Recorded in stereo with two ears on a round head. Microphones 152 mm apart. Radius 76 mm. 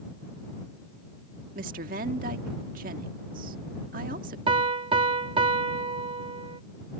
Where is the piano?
35° right (ahead or behind).